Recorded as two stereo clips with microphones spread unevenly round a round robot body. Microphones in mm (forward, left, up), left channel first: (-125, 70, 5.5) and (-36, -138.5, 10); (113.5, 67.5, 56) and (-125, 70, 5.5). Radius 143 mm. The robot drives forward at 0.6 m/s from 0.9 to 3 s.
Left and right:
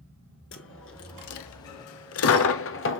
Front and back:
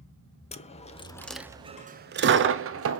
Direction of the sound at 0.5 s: 65° left.